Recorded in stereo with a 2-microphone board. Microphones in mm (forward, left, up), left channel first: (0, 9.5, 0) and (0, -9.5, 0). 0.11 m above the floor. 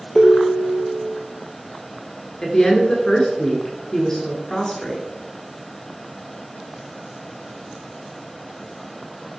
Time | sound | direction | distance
0.1 | a ringtone | 30° left (ahead or behind) | 1.2 m
2.4 | a woman speaking | 30° left (ahead or behind) | 1.2 m